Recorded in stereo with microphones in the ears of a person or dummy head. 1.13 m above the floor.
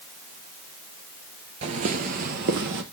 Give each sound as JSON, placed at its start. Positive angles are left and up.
{"t": 1.6, "sound": "footsteps", "side_deg": -35, "distance_m": 1.4}